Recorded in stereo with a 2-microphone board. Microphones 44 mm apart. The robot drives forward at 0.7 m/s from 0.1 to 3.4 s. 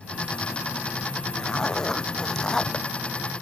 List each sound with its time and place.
1.4 s a zipper: 15° left (ahead or behind)